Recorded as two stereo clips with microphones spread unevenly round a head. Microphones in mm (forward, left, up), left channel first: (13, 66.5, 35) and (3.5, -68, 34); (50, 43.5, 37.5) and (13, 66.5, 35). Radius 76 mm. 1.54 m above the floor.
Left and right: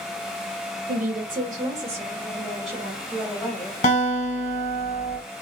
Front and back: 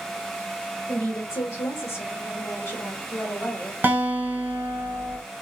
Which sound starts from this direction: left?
A guitar, at 3.8 s.